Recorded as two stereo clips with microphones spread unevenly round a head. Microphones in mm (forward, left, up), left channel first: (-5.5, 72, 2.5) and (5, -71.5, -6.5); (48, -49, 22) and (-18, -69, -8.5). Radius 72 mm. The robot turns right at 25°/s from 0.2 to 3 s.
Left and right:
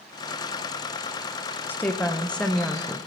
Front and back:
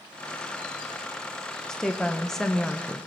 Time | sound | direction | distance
1.7 | a woman speaking | 160° left | 0.8 m